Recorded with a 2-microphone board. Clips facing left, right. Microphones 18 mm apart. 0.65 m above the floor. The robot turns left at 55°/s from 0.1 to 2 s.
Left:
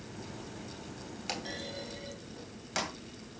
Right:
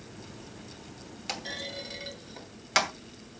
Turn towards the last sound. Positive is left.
turn(degrees=-45)  # may be behind; listen again after turning